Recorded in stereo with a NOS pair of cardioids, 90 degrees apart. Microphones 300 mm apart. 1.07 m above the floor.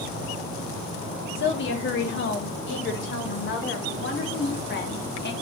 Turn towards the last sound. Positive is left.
turn(degrees=35)